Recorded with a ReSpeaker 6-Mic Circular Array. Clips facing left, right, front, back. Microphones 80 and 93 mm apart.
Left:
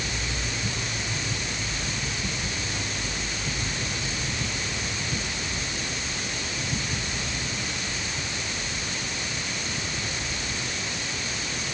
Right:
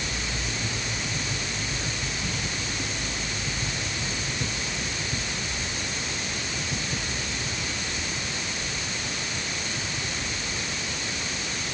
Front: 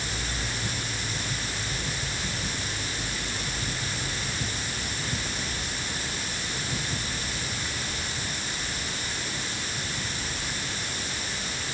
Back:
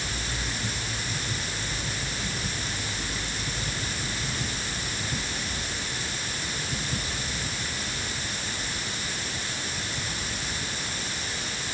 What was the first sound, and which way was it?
Only background noise.